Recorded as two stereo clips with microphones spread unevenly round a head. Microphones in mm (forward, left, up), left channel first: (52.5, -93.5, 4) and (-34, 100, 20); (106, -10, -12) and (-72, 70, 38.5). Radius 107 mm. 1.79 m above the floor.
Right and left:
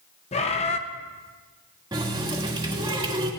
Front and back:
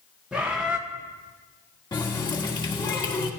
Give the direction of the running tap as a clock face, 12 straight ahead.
10 o'clock.